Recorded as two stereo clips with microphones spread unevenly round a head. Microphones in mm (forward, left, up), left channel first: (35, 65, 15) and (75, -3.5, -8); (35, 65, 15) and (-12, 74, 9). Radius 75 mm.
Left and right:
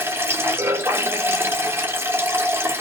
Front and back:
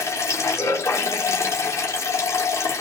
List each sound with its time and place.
0.0 s running water: straight ahead, 2 m